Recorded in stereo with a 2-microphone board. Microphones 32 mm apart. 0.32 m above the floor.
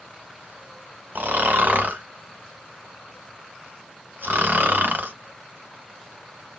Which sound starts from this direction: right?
Snoring, at 1.1 s.